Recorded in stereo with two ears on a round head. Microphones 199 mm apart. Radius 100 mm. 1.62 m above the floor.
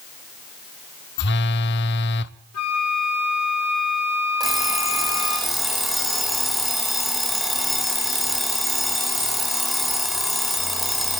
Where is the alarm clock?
Centre (ahead or behind), 4 m.